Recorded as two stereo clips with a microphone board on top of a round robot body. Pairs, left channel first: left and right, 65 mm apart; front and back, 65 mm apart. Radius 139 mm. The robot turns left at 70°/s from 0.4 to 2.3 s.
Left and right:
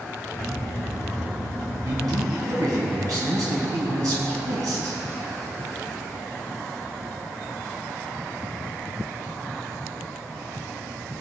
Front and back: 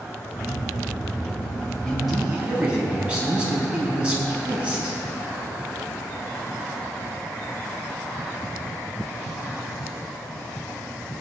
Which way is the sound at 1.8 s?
80° right.